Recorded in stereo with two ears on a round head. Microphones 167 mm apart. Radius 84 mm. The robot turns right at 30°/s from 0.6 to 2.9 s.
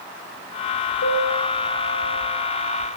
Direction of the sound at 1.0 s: 80° left.